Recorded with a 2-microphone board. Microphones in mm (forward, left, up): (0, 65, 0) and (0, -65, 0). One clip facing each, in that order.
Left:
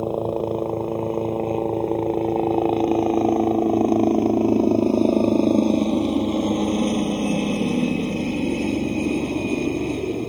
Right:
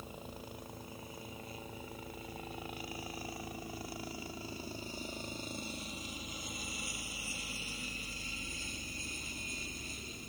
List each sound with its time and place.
0.0 s a helicopter: 65° left (ahead or behind)